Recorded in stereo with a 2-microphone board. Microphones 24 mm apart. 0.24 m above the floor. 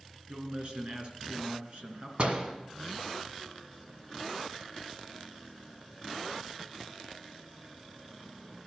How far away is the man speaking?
About 3 m.